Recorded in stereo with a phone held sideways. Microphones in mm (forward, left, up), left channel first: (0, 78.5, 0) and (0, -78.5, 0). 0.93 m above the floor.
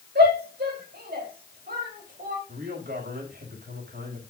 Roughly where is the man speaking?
Right.